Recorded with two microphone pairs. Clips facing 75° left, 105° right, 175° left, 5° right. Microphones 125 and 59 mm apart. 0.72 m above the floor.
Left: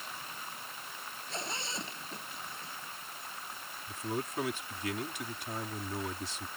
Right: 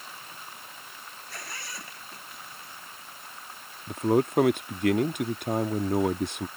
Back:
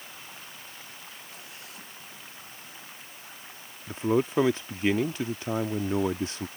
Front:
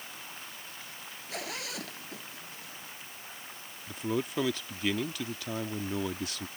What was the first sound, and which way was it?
A zipper, 5° left.